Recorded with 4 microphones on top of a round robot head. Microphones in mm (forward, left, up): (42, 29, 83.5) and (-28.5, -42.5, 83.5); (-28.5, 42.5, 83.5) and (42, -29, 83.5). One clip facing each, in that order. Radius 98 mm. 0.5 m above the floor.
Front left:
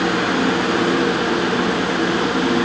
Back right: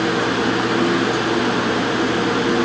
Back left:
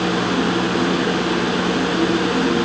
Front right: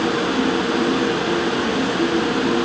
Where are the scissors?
I don't hear scissors.